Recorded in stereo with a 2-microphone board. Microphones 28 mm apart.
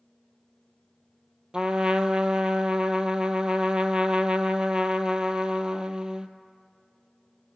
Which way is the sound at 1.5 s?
30° right (ahead or behind).